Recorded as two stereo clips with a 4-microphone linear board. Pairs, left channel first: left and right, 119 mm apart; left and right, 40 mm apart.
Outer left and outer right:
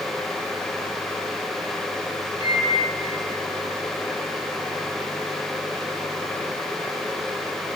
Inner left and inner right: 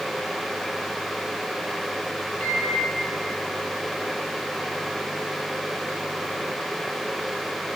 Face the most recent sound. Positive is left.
turn(degrees=40)  # may be behind; listen again after turning